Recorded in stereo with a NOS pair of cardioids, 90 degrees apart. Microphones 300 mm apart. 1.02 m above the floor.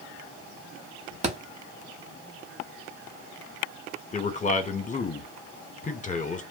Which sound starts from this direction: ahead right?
A thud, at 1.2 s.